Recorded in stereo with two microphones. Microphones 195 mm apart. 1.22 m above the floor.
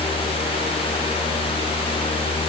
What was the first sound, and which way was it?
Only background noise.